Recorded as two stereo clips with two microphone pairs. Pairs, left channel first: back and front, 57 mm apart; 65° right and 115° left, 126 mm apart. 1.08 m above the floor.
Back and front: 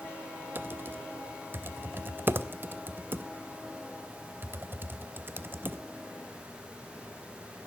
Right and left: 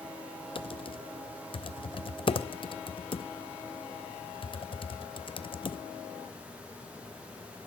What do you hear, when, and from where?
0.6 s typing on a keyboard: 40° right, 0.5 m